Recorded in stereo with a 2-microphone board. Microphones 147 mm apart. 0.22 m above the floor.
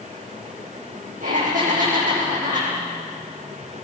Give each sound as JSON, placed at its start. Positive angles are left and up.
{"t": 1.2, "sound": "laughter", "side_deg": -75, "distance_m": 8.0}